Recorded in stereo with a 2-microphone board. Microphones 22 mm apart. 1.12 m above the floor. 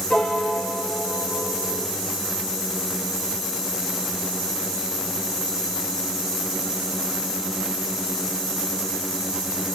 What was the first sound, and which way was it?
A piano, 75° left (ahead or behind).